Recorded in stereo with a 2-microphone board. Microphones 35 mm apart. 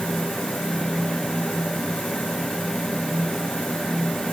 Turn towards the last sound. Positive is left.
No sound to turn to.